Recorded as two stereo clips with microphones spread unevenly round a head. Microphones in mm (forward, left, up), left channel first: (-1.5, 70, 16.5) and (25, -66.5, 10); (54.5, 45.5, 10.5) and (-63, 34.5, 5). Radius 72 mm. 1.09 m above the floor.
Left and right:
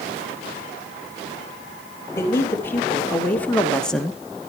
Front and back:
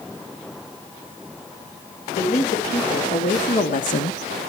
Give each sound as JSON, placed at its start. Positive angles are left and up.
{"t": 2.2, "sound": "a man speaking", "azimuth_deg": 25, "distance_m": 4.0}